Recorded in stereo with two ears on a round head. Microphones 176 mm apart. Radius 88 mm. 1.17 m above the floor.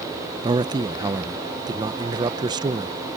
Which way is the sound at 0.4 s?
20° right (ahead or behind).